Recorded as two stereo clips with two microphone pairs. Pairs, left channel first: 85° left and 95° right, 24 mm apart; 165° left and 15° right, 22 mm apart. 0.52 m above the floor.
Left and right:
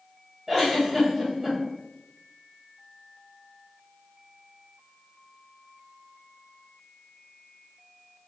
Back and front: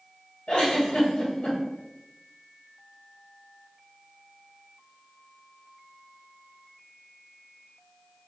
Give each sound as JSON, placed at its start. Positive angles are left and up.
{"t": 0.5, "sound": "a giggle", "azimuth_deg": -170, "distance_m": 1.9}